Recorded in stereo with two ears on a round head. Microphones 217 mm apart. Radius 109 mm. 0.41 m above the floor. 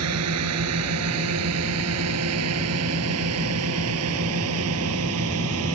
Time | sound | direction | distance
0.0 | a drone | 70° right (ahead or behind) | ?